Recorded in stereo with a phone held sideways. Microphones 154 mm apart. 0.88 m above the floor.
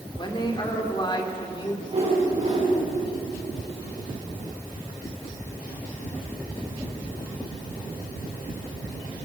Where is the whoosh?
40° right (ahead or behind), 7.5 m.